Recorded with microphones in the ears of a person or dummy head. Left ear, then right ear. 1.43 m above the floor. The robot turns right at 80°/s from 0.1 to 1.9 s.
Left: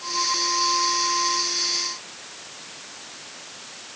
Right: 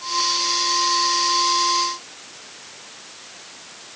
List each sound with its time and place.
Only background noise.